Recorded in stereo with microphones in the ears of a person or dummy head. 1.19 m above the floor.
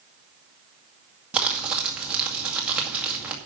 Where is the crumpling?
Centre (ahead or behind), 2.0 m.